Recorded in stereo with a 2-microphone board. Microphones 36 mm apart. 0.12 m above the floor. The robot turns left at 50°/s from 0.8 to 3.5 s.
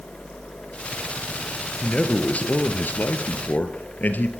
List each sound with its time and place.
1.8 s a man speaking: 155° left, 2 m; by 4.3 s 70° left, 2 m